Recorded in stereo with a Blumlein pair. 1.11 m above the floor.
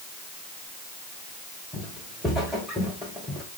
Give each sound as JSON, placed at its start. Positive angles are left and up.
{"t": 1.7, "sound": "footsteps", "azimuth_deg": -10, "distance_m": 4.0}